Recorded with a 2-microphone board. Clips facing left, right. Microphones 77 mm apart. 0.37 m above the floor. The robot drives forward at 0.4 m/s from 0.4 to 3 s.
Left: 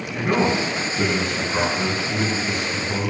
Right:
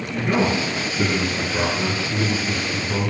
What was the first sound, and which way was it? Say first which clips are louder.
A man speaking: even; 50° left (ahead or behind).